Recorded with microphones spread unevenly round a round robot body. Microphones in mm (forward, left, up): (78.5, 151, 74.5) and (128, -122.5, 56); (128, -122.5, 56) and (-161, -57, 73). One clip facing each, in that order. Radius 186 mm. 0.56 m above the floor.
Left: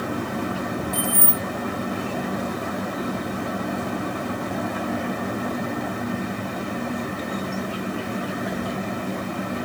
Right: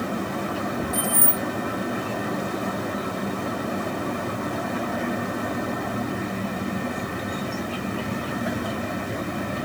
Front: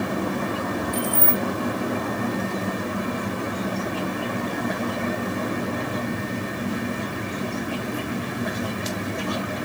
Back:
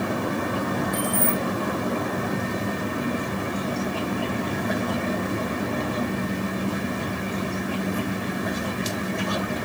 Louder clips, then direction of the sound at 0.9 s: Even, even; 45° left.